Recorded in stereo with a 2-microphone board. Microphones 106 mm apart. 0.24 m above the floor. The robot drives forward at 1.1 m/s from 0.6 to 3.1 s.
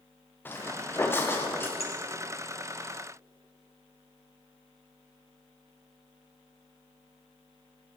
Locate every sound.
0.5 s footsteps: 20° left (ahead or behind), 2 m
1.8 s a clink: 70° left (ahead or behind), 4 m